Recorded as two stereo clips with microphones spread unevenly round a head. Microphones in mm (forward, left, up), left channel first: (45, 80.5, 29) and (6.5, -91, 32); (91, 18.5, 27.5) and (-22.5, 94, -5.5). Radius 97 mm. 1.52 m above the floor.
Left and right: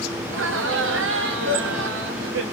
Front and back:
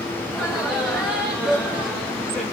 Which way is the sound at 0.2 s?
125° right.